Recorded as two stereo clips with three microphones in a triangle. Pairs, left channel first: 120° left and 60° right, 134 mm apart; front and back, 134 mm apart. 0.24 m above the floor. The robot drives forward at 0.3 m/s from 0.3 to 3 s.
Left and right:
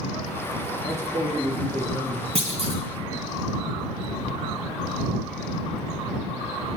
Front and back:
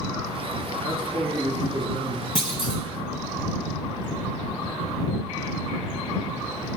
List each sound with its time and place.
0.8 s a man speaking: 125° right, 4.5 m; by 2.2 s 130° right, 5 m
2.4 s a clunk: 40° right, 1.9 m